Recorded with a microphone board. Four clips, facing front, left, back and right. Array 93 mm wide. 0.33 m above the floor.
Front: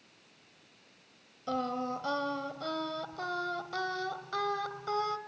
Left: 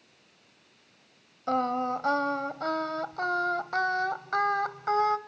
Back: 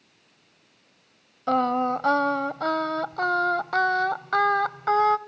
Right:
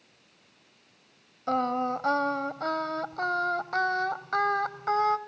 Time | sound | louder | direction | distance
1.5 | singing | even, back 11 dB | 175° left | 0.8 m